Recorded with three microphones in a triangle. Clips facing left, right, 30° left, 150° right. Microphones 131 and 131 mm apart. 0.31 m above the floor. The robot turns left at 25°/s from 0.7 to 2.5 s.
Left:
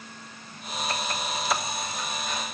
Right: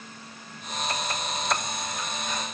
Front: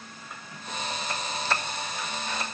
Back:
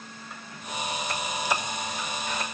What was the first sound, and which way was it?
Only background noise.